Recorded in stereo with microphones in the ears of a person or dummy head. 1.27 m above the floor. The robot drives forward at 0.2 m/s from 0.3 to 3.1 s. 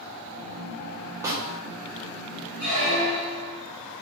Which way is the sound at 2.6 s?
40° right (ahead or behind).